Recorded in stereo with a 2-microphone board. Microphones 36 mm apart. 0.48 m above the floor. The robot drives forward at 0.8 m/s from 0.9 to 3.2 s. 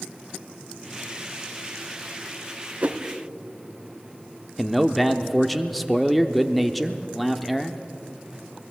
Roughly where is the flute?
No flute in this recording.